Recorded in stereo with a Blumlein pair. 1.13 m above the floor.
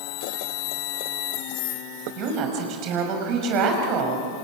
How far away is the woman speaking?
About 5.5 m.